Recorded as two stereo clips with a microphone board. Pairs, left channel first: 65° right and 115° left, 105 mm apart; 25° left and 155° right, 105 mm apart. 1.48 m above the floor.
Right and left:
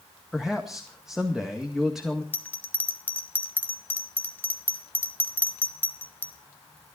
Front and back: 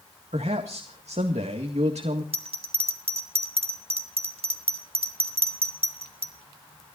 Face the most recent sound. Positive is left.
turn(degrees=-140)